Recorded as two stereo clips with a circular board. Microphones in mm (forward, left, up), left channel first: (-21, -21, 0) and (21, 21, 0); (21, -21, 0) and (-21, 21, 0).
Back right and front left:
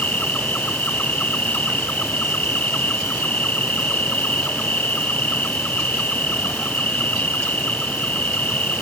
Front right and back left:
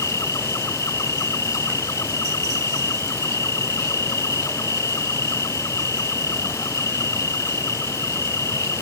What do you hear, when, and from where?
0.0 s an insect: 70° right